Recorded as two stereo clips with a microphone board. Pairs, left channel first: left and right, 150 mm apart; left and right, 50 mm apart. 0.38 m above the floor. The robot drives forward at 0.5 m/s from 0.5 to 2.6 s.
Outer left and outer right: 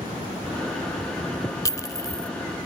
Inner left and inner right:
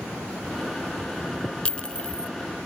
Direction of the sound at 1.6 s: 20° left (ahead or behind).